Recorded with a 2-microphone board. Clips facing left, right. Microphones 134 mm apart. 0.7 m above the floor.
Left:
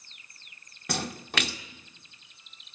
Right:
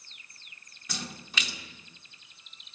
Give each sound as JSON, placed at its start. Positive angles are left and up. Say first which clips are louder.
{"t": 0.9, "sound": "a splash", "louder": "left 7 dB", "side_deg": 65, "distance_m": 1.9}